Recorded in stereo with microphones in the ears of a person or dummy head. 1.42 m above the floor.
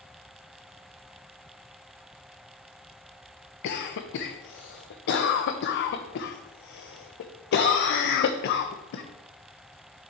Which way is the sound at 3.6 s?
60° left (ahead or behind).